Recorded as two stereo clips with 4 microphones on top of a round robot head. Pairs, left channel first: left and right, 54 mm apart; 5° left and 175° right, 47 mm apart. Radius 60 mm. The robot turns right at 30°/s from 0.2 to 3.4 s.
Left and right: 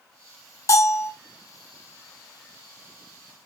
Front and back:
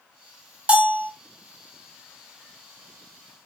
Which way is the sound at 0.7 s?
120° left.